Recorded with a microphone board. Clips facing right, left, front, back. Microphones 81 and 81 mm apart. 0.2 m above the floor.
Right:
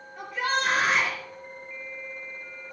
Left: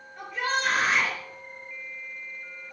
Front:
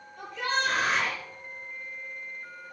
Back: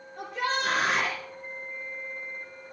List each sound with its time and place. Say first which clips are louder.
0.2 s a shout: right 1 dB, even; 175° right, 4.5 m